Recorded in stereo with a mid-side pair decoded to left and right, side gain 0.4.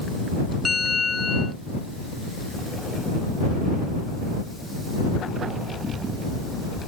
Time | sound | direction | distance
0.7 | a bell | 30° left | ?